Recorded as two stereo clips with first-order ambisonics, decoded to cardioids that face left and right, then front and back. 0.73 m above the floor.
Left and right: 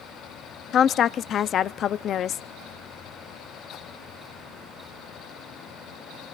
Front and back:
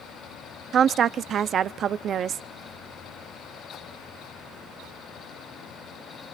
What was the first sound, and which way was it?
A woman speaking, 130° left.